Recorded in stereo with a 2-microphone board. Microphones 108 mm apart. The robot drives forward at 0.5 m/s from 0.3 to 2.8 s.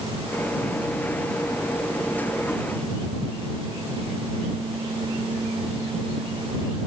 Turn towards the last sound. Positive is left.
No sound to turn to.